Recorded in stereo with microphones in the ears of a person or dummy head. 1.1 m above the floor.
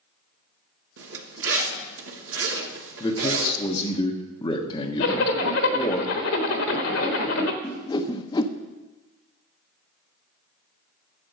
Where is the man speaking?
20° left (ahead or behind), 1.1 m.